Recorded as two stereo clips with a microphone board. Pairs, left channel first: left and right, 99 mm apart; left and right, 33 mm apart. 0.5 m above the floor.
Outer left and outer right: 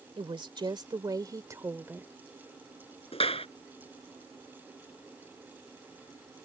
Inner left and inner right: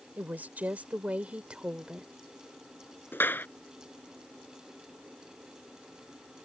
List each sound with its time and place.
0.2 s a woman speaking: 60° right (ahead or behind); by 2.1 s 20° right (ahead or behind)
3.1 s a clap: 75° left (ahead or behind)